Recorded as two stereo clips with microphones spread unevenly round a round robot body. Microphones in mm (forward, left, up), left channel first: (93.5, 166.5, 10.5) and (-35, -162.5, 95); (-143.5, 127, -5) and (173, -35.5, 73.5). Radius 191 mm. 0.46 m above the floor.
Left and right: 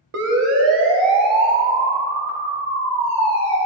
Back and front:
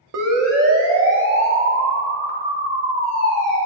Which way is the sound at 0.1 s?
70° right.